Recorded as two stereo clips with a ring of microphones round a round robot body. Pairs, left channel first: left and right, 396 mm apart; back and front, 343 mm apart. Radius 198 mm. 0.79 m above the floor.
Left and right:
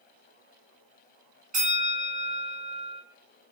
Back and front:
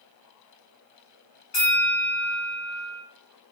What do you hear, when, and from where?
1.5 s a bell: 160° right, 2 m